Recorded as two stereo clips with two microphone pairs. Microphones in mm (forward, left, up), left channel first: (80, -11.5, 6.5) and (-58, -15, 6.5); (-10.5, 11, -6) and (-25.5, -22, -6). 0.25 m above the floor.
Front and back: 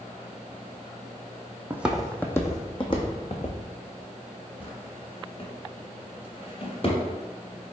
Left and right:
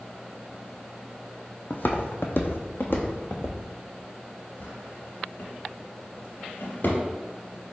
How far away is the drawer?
About 1.1 m.